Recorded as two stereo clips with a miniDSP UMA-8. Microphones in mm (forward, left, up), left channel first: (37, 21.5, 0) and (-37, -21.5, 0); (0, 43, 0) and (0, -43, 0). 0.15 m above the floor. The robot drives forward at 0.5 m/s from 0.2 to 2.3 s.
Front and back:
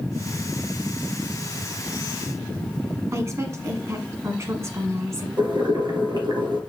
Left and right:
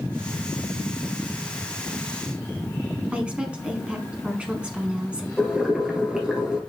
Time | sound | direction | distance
3.1 | a woman speaking | 155° right | 1.5 m
5.4 | boiling | 170° right | 2 m